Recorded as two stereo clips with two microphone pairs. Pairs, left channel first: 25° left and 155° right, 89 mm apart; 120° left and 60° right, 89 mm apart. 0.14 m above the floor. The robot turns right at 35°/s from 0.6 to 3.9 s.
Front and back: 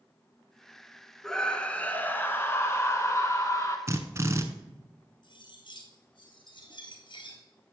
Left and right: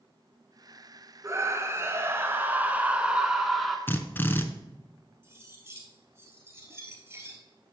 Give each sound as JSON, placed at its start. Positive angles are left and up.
{"t": 1.2, "sound": "a scream", "azimuth_deg": -55, "distance_m": 1.3}
{"t": 3.9, "sound": "a drill", "azimuth_deg": 175, "distance_m": 0.8}
{"t": 5.2, "sound": "cutlery clinking", "azimuth_deg": 0, "distance_m": 1.7}